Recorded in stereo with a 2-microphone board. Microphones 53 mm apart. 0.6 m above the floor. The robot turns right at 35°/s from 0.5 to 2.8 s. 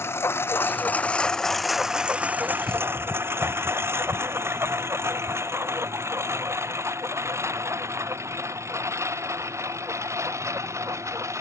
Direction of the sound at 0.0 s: 50° left (ahead or behind).